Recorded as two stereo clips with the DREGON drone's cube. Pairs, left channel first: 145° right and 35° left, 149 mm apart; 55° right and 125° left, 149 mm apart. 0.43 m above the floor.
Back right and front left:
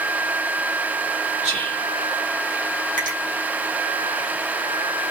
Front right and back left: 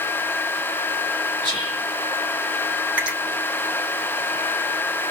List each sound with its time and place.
1.4 s whispering: 65° left, 3 m
3.0 s a finger snap: 45° left, 2.5 m